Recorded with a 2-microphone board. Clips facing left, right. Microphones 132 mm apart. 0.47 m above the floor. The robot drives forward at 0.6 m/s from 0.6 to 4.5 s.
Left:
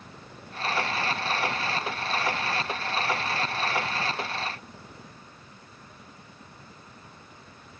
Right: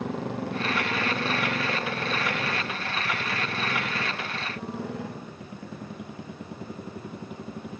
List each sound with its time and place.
0.0 s a motorcycle: 80° right; by 7.8 s 75° right (ahead or behind)